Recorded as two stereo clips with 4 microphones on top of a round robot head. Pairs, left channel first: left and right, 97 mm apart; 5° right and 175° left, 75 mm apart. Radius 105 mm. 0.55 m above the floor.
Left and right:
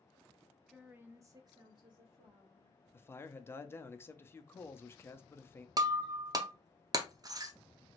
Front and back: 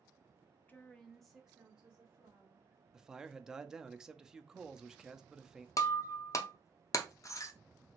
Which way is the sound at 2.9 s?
105° left.